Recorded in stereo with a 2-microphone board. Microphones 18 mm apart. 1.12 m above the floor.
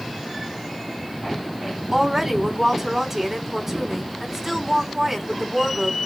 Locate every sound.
1.9 s a woman speaking: 25° right (ahead or behind), 3.5 m